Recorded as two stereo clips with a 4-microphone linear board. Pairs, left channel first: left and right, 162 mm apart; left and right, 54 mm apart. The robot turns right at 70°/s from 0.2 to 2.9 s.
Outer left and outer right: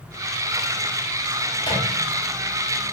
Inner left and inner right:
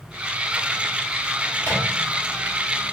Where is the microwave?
20° left (ahead or behind), 1.5 m; by 1.9 s 40° left (ahead or behind), 1.5 m.